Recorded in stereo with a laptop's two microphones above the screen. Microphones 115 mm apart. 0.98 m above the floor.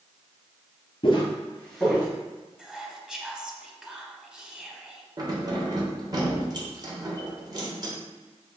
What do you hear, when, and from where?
1.0 s footsteps: 45° left (ahead or behind), 1.2 m; by 2.1 s 15° right (ahead or behind), 1.1 m
2.6 s whispering: 5° right (ahead or behind), 0.8 m
5.2 s keys jangling: 35° right (ahead or behind), 0.8 m